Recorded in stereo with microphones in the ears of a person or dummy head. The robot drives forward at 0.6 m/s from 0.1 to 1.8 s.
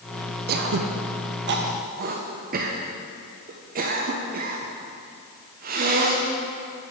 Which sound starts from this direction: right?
Throat clearing, at 0.5 s.